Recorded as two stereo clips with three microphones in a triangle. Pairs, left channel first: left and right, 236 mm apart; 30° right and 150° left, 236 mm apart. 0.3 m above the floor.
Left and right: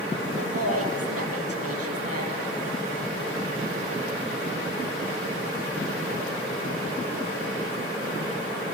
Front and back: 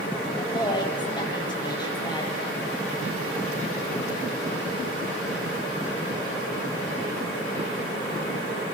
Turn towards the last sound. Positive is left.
turn(degrees=-100)